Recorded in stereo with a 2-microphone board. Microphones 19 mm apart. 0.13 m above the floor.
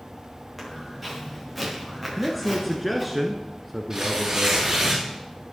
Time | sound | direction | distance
0.6 | footsteps | centre (ahead or behind) | 8 m
2.2 | a man speaking | 5° right (ahead or behind) | 1.2 m
3.9 | tearing paper | 25° right (ahead or behind) | 6.5 m